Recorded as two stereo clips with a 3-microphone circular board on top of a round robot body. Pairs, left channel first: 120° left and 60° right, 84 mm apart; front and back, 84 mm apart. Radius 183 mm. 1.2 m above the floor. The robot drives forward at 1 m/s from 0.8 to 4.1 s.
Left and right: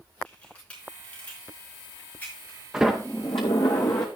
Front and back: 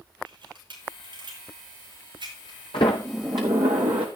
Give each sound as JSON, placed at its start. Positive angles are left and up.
{"t": 0.2, "sound": "a camera shutter", "azimuth_deg": -165, "distance_m": 5.0}
{"t": 2.7, "sound": "a sliding door", "azimuth_deg": 15, "distance_m": 0.7}